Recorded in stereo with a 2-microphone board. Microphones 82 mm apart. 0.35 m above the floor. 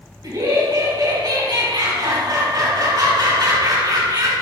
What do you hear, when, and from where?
0.2 s laughter: 60° right (ahead or behind), 3 m